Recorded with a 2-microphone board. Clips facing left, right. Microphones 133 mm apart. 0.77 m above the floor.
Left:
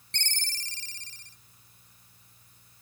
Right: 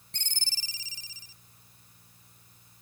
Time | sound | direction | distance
0.1 | a ringtone | 5° right (ahead or behind) | ?